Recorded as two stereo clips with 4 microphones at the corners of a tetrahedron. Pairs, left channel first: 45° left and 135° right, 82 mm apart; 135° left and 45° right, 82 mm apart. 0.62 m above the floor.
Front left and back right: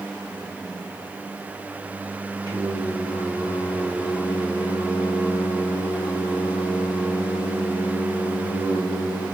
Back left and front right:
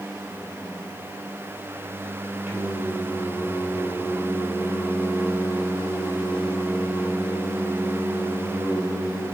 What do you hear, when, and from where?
2.5 s singing: 120° right, 3 m